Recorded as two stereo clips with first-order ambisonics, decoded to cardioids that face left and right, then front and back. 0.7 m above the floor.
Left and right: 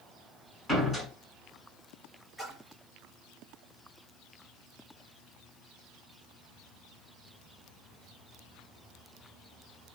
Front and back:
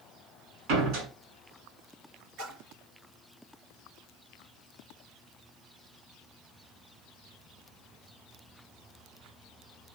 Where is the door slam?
Straight behind, 6 m.